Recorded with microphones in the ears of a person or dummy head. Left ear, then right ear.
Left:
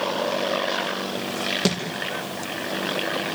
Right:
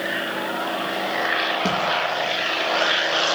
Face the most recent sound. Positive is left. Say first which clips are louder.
# right 2 dB
turn(degrees=70)  # may be behind; listen again after turning